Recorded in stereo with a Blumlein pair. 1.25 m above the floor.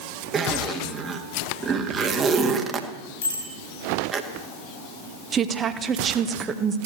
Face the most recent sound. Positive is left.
turn(degrees=-20)